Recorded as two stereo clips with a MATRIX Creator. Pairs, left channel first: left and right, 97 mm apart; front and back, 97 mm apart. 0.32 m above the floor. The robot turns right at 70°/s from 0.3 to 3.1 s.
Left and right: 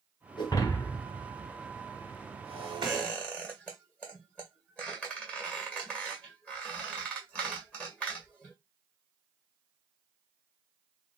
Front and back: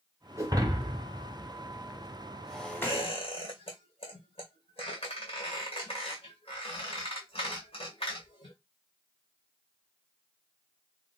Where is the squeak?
10° right, 2.0 m; by 8.6 s 10° left, 2.0 m.